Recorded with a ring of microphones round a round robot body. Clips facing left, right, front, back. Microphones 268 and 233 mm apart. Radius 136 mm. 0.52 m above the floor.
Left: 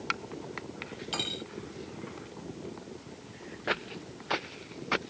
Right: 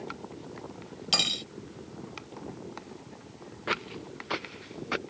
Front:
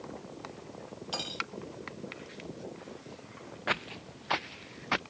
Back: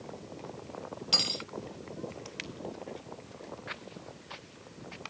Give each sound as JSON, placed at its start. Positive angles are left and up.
{"t": 1.1, "sound": "cutlery clinking", "azimuth_deg": -115}
{"t": 3.7, "sound": "footsteps", "azimuth_deg": -10}